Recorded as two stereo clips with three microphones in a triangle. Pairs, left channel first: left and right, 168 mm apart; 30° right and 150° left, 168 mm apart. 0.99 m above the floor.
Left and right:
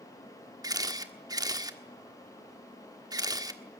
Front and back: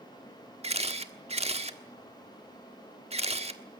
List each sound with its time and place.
0.6 s a camera shutter: 155° right, 1.4 m